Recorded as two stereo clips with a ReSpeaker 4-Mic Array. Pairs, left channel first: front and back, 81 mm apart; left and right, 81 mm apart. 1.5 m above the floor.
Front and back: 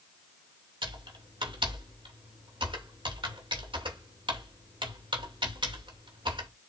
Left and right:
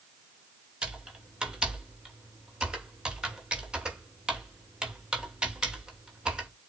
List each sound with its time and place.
0.8 s typing on a keyboard: 170° right, 2.5 m